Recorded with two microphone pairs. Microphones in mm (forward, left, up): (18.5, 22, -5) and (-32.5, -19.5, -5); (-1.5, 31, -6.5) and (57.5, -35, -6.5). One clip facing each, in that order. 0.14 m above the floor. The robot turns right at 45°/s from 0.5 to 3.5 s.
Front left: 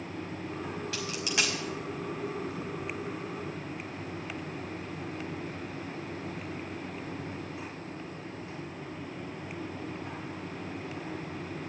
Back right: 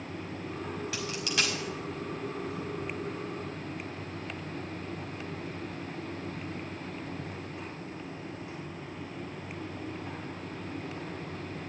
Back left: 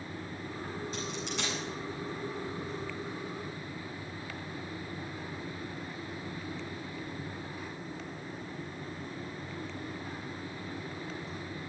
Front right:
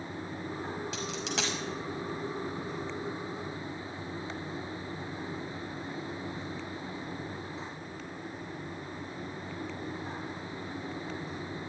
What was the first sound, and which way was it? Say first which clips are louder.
A dropped coin: even, front right 2 dB; 50° right.